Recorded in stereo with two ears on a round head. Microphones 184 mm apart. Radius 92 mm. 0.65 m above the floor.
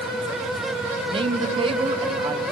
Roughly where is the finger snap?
No finger snap in this recording.